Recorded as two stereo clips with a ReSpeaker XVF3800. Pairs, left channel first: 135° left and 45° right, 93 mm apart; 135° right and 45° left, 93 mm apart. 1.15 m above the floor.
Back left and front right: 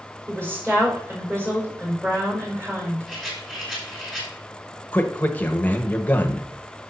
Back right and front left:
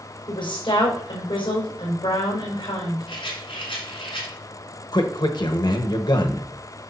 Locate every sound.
0.3 s a woman speaking: 110° right, 4.5 m
3.1 s a rattle: 130° right, 3.5 m
4.9 s a man speaking: 155° right, 1.0 m